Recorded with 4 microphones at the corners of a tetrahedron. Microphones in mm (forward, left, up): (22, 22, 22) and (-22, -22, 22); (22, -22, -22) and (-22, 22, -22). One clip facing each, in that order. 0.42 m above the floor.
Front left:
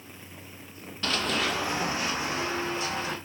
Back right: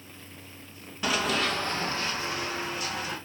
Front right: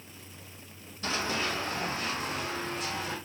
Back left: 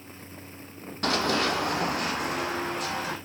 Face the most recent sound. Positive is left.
turn(degrees=105)